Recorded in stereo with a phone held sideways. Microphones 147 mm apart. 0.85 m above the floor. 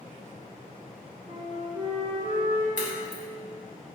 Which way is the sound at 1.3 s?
55° right (ahead or behind).